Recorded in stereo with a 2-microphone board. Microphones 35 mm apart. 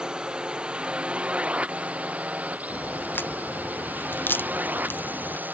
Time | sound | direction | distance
0.0 | a drone | 20° right (ahead or behind) | ?
2.7 | a crack | 85° left | ?